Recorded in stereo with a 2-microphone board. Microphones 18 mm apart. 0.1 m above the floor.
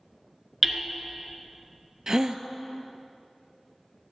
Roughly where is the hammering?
Centre.